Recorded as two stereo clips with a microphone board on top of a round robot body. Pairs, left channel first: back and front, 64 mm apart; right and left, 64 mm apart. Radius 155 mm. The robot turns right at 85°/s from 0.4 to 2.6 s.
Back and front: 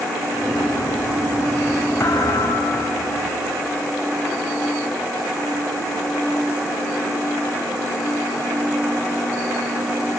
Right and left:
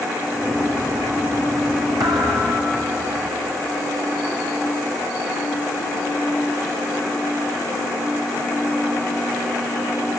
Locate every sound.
2.0 s a thud: 120° left, 3 m; by 3.3 s 175° left, 3 m